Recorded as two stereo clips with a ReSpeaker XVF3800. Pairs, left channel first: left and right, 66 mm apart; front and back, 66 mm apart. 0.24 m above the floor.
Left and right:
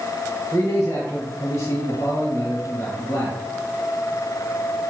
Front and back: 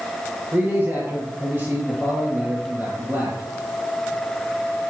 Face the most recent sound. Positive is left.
turn(degrees=125)